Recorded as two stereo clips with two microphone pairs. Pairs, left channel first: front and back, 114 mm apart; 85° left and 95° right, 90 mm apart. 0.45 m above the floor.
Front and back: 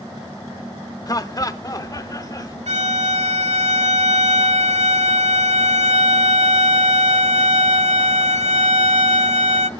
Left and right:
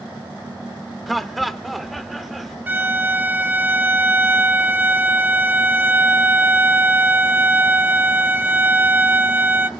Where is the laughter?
5° right, 0.8 m.